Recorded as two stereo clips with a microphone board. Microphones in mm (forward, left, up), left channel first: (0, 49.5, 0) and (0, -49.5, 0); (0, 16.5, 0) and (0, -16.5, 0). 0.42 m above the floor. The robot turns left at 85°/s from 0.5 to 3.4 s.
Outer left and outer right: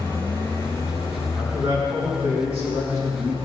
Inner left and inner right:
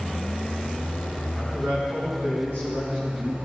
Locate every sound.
0.0 s an engine running: 125° left, 4.5 m; by 3.5 s 120° right, 4.5 m
1.3 s a man speaking: straight ahead, 5 m; by 3.4 s 170° right, 5 m